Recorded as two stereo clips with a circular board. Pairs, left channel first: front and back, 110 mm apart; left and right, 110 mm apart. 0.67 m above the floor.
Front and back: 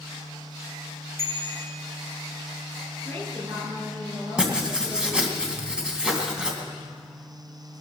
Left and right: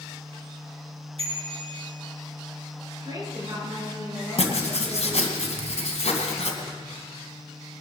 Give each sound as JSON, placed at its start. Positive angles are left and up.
{"t": 1.2, "sound": "a bicycle bell", "azimuth_deg": -115, "distance_m": 4.0}
{"t": 3.0, "sound": "a woman speaking", "azimuth_deg": -150, "distance_m": 8.5}
{"t": 4.4, "sound": "writing", "azimuth_deg": 95, "distance_m": 2.5}